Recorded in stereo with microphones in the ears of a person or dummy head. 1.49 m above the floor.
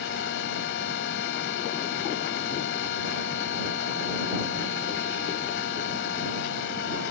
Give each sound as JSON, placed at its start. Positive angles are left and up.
{"t": 0.0, "sound": "a machine running", "side_deg": 75}